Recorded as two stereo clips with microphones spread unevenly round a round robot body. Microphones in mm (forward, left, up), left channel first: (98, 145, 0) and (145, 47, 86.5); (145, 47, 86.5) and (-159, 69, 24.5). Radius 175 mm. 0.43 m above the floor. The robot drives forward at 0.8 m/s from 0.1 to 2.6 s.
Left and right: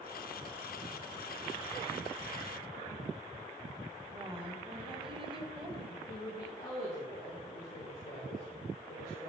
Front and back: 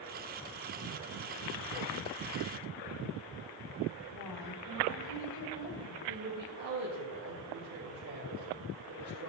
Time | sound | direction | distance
4.1 | a woman speaking | 5° right | 4 m
6.1 | a woman speaking | 155° left | 4 m